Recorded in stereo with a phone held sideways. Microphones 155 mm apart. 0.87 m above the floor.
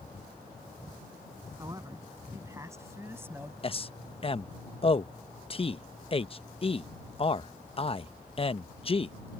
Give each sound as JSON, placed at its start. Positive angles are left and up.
{"t": 1.6, "sound": "a man speaking", "side_deg": -25}
{"t": 3.6, "sound": "a man speaking", "side_deg": 35}